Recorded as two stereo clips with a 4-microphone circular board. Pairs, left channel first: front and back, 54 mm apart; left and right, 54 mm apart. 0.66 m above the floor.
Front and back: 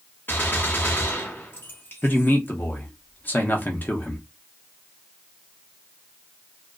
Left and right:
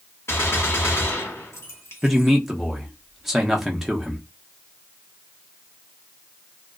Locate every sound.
0.3 s a gunshot: 55° left, 0.9 m
2.0 s a man speaking: 10° right, 0.7 m